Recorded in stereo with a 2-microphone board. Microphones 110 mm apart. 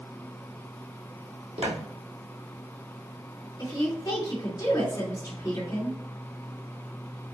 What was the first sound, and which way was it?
Footsteps, 65° right (ahead or behind).